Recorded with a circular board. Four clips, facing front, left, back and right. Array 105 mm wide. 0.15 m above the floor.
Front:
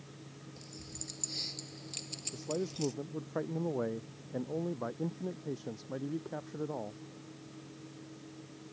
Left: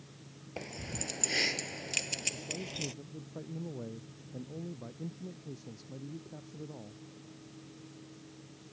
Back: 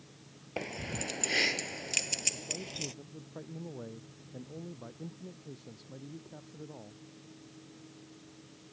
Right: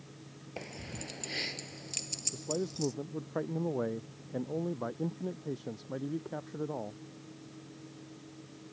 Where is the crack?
I don't hear a crack.